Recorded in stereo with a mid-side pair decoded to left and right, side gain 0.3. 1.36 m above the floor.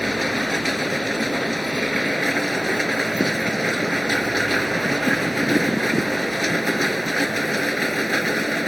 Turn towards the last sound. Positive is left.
turn(degrees=5)